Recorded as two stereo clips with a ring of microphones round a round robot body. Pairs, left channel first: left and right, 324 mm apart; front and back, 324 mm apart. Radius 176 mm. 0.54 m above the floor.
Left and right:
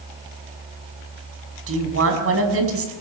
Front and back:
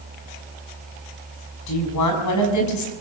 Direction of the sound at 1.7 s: 45° right.